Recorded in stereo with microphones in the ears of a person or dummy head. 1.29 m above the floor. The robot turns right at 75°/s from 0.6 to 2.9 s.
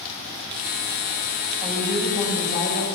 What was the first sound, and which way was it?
A woman speaking, 35° right.